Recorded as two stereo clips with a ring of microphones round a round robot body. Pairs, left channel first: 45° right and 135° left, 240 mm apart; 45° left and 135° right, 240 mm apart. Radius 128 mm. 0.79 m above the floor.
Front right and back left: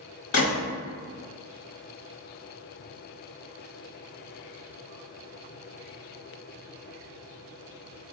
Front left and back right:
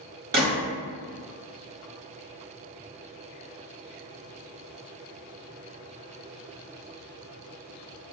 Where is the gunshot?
85° right, 1.6 m.